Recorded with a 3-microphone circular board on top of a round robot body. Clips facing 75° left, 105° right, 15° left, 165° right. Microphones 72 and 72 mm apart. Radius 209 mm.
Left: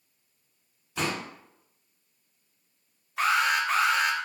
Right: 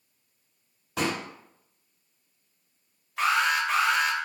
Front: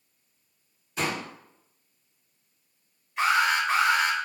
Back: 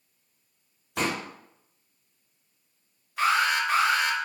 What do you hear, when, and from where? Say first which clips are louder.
1.0 s a pop: right 2 dB, back 1 dB; 125° right, 0.7 m
3.2 s an alarm: even, front 1 dB; 10° right, 1.1 m